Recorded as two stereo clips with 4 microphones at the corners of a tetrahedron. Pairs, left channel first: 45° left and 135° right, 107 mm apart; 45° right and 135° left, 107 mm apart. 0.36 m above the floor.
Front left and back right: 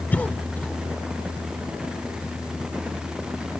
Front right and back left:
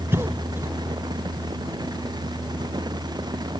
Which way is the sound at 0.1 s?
100° left.